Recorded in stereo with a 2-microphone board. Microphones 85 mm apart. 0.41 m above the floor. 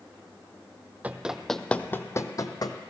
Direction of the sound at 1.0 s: 20° right (ahead or behind).